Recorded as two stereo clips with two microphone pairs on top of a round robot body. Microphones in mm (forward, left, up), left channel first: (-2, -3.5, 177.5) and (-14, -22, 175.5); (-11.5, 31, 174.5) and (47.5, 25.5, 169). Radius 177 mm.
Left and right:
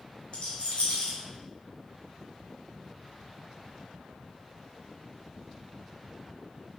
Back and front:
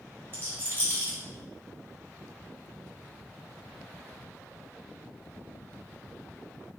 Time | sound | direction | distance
0.3 | a rattle | 40° left | 1.9 m